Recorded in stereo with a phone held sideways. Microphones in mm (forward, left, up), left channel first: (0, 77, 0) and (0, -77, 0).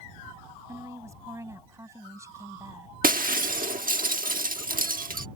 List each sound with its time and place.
0.7 s a woman speaking: 20° right (ahead or behind)
3.0 s breaking glass: 65° right (ahead or behind)